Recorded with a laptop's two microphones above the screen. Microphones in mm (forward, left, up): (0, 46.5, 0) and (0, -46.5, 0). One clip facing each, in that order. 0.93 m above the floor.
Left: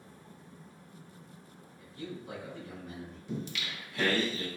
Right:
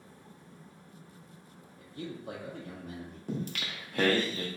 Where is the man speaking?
55° right (ahead or behind), 0.7 m.